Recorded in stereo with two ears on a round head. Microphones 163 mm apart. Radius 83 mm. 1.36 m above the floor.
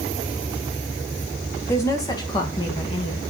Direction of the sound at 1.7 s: 15° left (ahead or behind).